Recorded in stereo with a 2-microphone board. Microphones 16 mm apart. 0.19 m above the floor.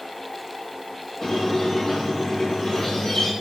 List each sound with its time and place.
1.2 s a squeak: 45° left (ahead or behind), 6.5 m